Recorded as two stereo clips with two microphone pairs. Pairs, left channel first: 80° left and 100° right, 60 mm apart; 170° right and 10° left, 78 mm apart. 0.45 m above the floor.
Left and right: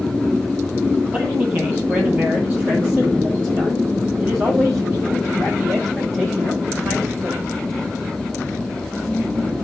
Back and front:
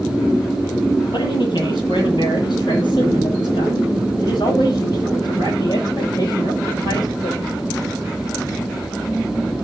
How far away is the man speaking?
About 9.5 m.